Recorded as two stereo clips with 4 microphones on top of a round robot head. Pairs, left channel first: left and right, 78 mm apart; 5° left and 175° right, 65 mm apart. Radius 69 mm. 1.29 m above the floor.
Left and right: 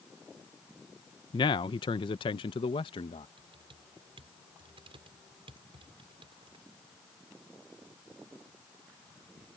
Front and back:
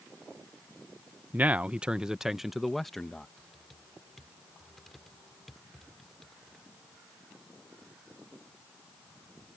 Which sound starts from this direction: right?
Typing on a keyboard, at 3.4 s.